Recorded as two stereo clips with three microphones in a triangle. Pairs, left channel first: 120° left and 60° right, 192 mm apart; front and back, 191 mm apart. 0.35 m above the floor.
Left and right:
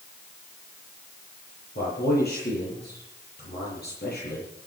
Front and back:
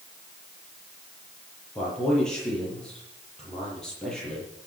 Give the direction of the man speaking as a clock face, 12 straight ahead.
9 o'clock.